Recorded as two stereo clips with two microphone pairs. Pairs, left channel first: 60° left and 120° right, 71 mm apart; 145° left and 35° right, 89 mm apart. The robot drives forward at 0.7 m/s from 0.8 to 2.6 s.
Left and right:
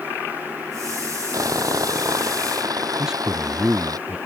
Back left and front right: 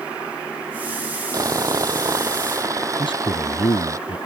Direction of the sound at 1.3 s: 85° right.